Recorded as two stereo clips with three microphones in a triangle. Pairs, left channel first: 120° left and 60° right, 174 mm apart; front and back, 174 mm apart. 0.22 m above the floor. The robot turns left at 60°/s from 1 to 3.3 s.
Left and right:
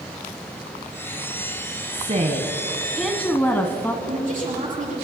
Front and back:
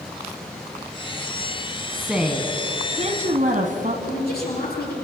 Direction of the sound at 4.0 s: 20° right.